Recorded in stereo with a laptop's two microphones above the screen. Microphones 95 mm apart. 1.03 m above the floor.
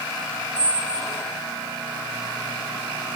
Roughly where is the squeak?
Left.